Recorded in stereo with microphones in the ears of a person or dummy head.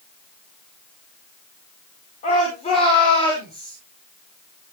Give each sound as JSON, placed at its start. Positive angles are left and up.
{"t": 2.2, "sound": "a shout", "side_deg": 35, "distance_m": 4.0}